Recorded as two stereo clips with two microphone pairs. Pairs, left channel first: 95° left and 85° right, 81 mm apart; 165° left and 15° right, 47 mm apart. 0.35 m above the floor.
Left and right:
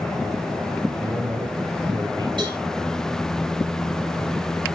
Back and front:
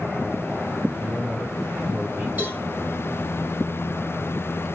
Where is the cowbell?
70° right, 8 m.